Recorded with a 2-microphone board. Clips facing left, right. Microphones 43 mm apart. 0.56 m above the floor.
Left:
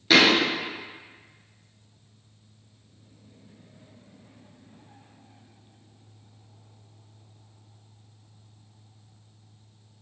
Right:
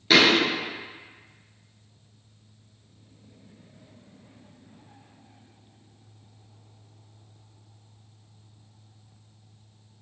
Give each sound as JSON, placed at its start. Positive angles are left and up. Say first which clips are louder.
{"t": 0.1, "sound": "a thud", "louder": "even", "side_deg": 0, "distance_m": 0.8}